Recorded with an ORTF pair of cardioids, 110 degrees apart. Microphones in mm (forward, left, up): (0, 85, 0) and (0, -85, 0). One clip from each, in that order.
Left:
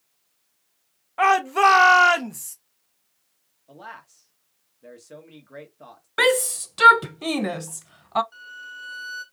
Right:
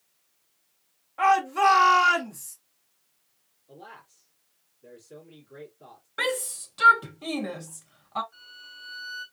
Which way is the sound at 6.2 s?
40° left.